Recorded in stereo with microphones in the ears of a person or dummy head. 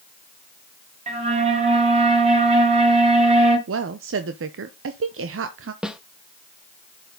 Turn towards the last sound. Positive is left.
turn(degrees=-5)  # may be behind; listen again after turning